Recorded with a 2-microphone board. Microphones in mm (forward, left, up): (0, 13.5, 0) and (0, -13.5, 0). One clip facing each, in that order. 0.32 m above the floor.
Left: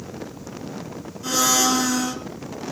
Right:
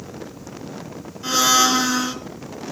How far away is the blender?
About 1.4 m.